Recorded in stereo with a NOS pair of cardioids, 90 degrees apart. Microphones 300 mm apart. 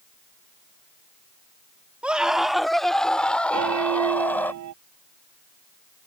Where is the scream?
5° right; by 4.5 s 5° left.